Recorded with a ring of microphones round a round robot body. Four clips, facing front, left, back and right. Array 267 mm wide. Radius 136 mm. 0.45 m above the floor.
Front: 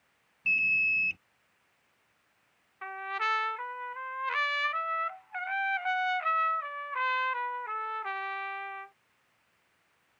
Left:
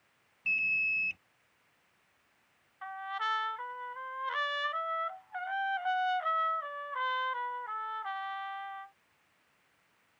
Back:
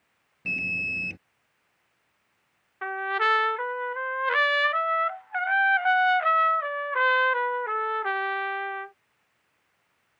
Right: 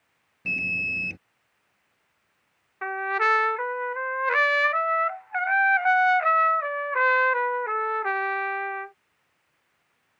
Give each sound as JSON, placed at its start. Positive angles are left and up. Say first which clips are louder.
{"t": 0.5, "sound": "an alarm", "louder": "right 4 dB, front 1 dB", "azimuth_deg": -130}
{"t": 2.8, "sound": "a trumpet", "louder": "right 11 dB, back 8 dB", "azimuth_deg": -125}